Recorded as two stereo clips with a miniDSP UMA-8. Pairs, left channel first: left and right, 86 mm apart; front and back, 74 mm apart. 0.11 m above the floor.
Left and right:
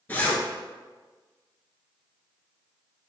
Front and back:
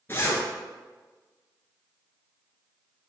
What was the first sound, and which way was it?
A zipper, 35° left.